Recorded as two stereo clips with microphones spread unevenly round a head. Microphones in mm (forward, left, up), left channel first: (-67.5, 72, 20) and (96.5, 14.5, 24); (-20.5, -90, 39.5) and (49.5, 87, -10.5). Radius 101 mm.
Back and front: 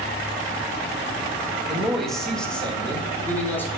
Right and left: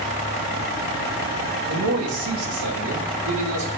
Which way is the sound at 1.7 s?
70° left.